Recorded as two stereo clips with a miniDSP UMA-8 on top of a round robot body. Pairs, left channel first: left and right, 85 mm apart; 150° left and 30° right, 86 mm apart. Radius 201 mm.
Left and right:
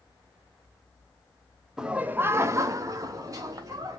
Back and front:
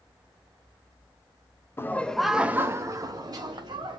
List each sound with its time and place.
1.8 s laughter: 170° right, 0.6 m; by 4.0 s 45° right, 1.1 m